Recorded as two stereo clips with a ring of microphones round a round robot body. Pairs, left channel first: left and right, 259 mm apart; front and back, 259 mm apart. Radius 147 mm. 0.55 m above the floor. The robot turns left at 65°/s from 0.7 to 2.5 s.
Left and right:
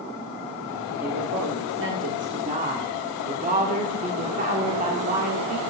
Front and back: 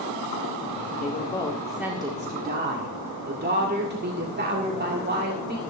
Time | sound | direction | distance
1.0 | a woman speaking | 45° right | 1.8 m